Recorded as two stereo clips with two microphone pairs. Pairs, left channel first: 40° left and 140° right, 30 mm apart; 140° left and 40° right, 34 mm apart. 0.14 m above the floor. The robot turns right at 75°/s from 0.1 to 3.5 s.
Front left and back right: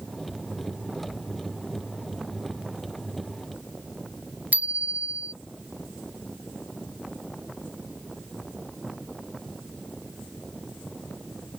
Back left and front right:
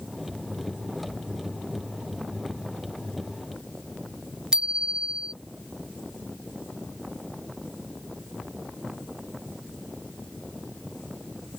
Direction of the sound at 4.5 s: 105° right.